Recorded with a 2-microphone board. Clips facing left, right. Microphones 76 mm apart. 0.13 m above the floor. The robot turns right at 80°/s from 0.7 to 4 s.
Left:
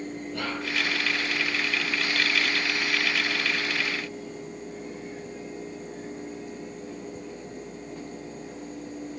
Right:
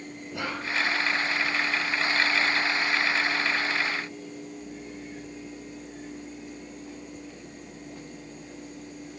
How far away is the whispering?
About 1.2 m.